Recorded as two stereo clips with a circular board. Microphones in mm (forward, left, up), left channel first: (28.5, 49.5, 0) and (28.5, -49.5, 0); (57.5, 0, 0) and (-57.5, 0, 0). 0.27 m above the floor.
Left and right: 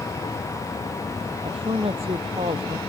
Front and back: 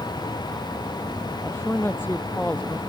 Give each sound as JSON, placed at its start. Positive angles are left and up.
{"t": 1.4, "sound": "a woman speaking", "azimuth_deg": -70}